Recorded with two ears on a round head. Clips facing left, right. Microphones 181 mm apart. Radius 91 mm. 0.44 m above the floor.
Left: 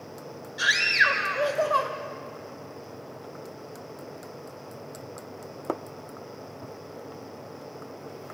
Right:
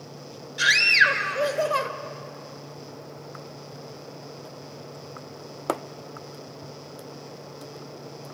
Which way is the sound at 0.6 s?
35° right (ahead or behind).